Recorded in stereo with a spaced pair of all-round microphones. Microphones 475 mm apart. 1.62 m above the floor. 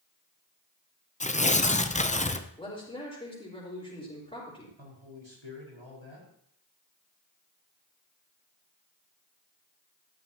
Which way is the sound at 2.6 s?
15° left (ahead or behind).